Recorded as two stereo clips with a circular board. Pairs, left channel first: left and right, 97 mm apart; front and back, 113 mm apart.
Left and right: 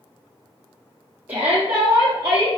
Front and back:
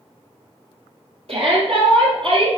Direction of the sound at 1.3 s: 160° right.